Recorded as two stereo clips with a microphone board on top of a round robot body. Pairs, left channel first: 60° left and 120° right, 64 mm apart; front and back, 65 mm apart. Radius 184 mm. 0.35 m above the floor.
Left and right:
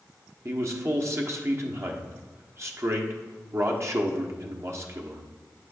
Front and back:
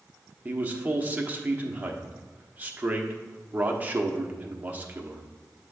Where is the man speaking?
125° right, 1.2 m.